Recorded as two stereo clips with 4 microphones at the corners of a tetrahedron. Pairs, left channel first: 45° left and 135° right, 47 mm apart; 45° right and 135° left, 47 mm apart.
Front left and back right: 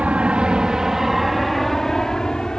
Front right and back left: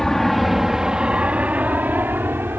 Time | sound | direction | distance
0.0 | an aircraft | 115° right | ?